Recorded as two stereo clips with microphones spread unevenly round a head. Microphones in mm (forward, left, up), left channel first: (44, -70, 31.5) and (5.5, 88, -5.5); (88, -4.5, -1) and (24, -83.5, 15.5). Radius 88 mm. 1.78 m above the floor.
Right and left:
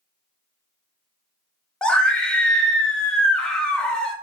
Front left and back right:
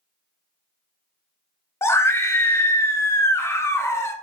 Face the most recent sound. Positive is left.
turn(degrees=-10)